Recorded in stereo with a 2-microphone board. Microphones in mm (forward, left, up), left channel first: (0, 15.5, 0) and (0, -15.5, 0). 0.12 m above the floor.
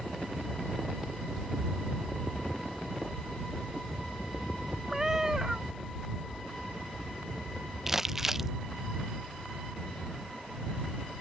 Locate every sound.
4.9 s a cat meowing: 15° right (ahead or behind)
7.9 s crumpling: 10° right (ahead or behind)